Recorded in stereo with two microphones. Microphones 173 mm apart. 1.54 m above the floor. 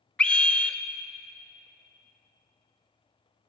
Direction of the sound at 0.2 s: 5° left (ahead or behind).